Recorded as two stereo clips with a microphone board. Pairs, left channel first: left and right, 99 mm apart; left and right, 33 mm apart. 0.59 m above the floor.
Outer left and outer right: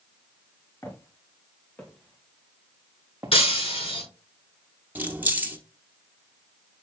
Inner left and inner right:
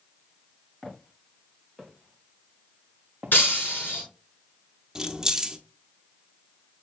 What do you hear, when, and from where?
0.8 s footsteps: 25° left (ahead or behind), 4.5 m; by 3.4 s 30° right (ahead or behind), 1.9 m
3.3 s breaking glass: 75° left (ahead or behind), 5.5 m
5.0 s keys jangling: 20° right (ahead or behind), 1.0 m